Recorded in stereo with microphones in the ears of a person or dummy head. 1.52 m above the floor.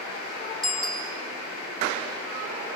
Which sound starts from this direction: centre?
A bicycle bell, at 0.6 s.